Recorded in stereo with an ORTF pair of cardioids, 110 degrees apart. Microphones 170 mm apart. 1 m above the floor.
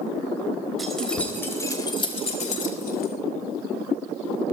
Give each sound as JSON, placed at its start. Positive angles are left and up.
{"t": 0.8, "sound": "keys jangling", "azimuth_deg": 0, "distance_m": 4.0}